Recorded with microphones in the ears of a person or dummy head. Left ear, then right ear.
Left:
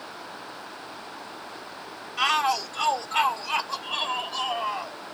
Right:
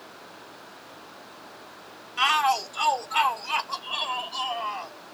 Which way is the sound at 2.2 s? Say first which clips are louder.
Right 1 dB; 10° right (ahead or behind).